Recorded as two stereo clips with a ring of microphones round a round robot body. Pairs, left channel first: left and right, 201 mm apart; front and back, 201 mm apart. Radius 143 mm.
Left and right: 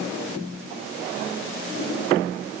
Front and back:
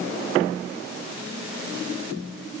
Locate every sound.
Only background noise.